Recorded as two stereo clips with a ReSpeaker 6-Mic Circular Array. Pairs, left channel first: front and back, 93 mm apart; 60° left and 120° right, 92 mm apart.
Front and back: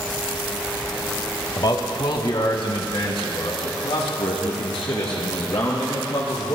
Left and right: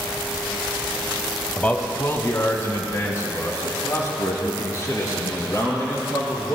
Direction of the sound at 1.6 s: 10° right.